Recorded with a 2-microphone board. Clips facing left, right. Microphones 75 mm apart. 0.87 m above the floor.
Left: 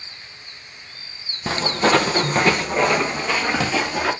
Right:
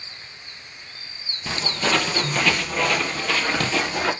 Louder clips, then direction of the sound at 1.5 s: Left 6 dB; 40° left (ahead or behind).